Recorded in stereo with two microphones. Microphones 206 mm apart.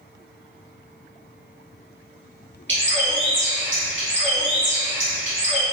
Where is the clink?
I don't hear a clink.